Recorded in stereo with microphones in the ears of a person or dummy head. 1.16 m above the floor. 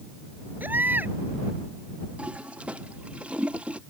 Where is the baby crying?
5° right (ahead or behind).